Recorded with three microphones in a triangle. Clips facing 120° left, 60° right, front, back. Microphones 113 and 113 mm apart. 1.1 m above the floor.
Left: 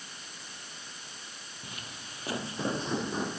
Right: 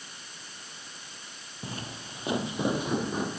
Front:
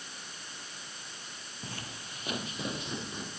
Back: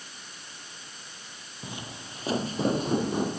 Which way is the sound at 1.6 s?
105° right.